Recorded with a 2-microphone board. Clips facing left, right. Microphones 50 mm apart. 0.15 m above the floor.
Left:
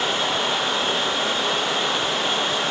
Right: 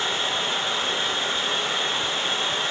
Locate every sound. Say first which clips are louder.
0.0 s running water: left 3 dB; 85° left, 9.5 m